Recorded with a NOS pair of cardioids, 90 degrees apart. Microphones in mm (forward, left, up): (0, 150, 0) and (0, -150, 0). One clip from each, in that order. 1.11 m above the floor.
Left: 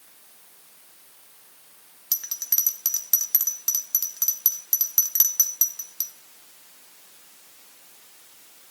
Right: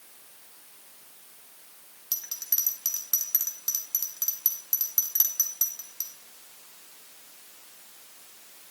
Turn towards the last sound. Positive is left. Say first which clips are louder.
# left 5 dB
turn(degrees=30)